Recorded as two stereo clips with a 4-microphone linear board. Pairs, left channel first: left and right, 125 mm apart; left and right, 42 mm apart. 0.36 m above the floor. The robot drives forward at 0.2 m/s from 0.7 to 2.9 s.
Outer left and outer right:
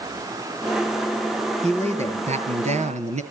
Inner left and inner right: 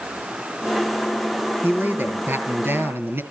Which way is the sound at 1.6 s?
65° right (ahead or behind).